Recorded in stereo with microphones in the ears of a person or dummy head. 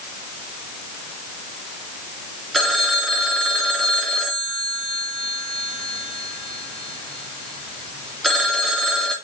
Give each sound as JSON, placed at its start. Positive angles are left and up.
{"t": 2.5, "sound": "a phone ringing", "side_deg": 0, "distance_m": 2.0}